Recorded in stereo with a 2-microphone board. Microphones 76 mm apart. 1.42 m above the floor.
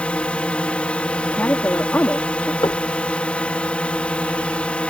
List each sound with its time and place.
0.0 s a drone: 15° left (ahead or behind)
1.2 s a woman speaking: 25° left (ahead or behind)
2.6 s knocking: 60° left (ahead or behind)